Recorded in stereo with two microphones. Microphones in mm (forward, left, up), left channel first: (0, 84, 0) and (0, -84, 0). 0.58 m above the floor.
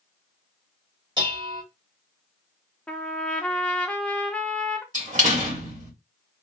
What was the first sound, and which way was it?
Dishes clattering, 25° right (ahead or behind).